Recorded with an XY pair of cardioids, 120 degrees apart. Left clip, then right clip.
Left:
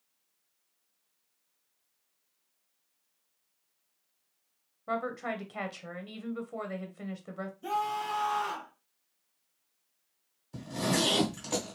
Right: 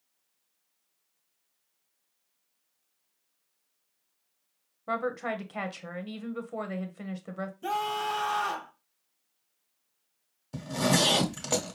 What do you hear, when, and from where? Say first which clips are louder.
4.9 s a woman speaking: right 3 dB; 15° right, 1.1 m
7.6 s a scream: right 2 dB; 45° right, 1.8 m
10.5 s a zipper: right 4 dB; 50° right, 1.7 m